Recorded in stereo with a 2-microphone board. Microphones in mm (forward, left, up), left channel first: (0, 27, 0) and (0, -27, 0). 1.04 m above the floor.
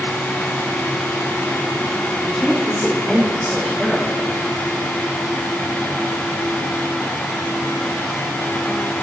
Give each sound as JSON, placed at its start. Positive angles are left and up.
{"t": 2.2, "sound": "a woman speaking", "side_deg": -5, "distance_m": 2.0}